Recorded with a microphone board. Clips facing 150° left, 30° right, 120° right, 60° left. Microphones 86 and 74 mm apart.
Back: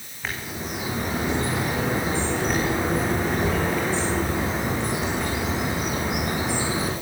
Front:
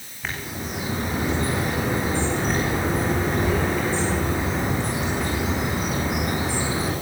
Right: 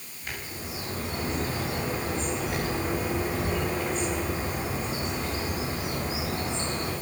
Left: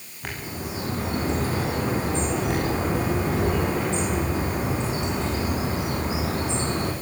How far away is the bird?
About 8.5 m.